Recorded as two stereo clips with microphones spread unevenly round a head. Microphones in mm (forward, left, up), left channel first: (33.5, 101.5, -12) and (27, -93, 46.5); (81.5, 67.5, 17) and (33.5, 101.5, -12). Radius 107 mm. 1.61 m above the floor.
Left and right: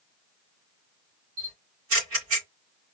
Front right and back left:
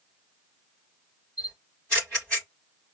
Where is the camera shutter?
125° right, 3.5 m.